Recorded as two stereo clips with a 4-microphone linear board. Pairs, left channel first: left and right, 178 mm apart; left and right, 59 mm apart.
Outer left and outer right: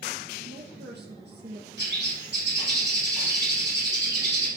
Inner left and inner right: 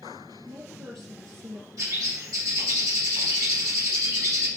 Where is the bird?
75° right (ahead or behind), 5.5 m.